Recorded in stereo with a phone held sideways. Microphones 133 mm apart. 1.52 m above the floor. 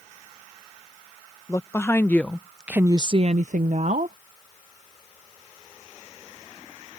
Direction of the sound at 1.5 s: 25° left (ahead or behind).